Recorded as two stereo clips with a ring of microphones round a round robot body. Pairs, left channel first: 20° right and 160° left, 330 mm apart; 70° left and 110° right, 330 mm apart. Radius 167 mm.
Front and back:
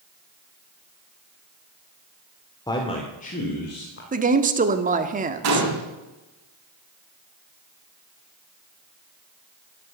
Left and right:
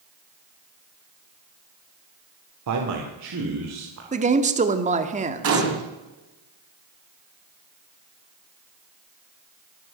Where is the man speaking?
100° right, 1.9 m; by 4.0 s 75° right, 2.5 m.